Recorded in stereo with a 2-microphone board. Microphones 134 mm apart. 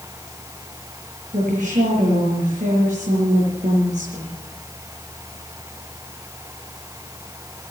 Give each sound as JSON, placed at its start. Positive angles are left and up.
{"t": 1.3, "sound": "a woman speaking", "side_deg": -70, "distance_m": 5.0}